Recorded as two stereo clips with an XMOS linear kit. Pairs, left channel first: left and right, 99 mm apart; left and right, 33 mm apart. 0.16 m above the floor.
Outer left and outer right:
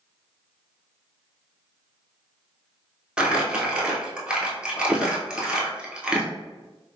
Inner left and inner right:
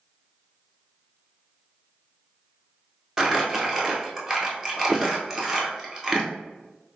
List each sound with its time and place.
3.2 s crumpling: 10° right (ahead or behind), 1.0 m